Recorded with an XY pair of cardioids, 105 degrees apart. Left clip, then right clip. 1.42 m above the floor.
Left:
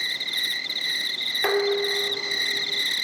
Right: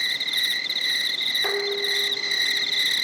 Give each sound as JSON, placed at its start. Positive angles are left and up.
{"t": 0.0, "sound": "an insect", "azimuth_deg": -20}
{"t": 1.4, "sound": "dishes clattering", "azimuth_deg": 35}